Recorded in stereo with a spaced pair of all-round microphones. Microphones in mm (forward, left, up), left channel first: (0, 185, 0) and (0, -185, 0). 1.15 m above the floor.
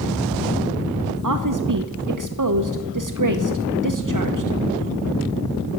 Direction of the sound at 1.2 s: 55° right (ahead or behind).